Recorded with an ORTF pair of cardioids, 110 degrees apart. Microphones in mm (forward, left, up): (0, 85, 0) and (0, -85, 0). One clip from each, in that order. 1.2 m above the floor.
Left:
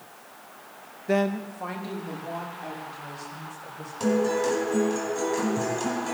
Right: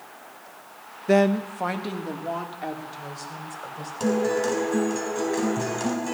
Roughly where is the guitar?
Ahead.